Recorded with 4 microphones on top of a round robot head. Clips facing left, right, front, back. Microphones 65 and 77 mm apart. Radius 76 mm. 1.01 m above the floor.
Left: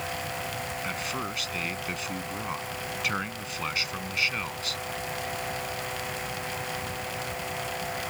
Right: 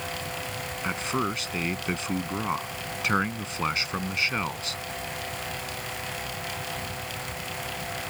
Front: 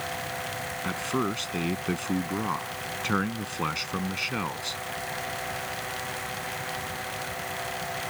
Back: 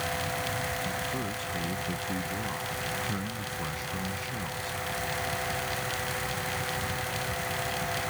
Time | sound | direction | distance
0.8 | a man speaking | 25° right | ?